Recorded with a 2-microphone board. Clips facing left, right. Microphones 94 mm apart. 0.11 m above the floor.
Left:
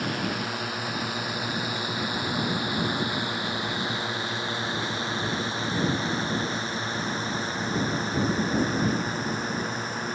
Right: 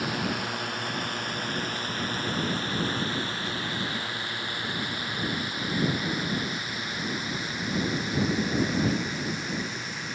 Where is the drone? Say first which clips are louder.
Left 1 dB; centre (ahead or behind); by 10.2 s 40° left (ahead or behind).